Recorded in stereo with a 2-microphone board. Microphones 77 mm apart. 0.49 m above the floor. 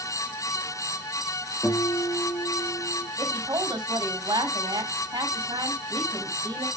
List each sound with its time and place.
1.6 s a guitar: 25° left (ahead or behind), 4 m
3.2 s a woman speaking: 65° right (ahead or behind), 3 m